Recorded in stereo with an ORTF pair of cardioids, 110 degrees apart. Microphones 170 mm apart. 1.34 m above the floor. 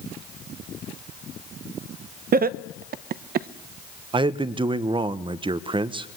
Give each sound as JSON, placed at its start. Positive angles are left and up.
{"t": 2.3, "sound": "laughter", "azimuth_deg": -55, "distance_m": 0.9}
{"t": 4.1, "sound": "a man speaking", "azimuth_deg": -30, "distance_m": 1.2}